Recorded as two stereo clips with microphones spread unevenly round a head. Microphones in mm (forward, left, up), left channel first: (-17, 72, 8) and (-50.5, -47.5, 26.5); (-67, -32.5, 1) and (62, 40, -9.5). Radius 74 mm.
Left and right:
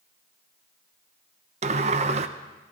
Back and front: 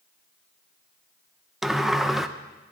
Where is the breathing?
No breathing in this recording.